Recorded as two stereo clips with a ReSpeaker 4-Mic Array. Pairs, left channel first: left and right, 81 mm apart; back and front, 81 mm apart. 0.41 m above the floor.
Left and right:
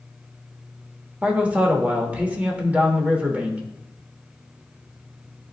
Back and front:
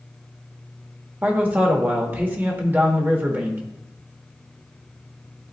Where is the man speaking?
40° right, 1.1 m.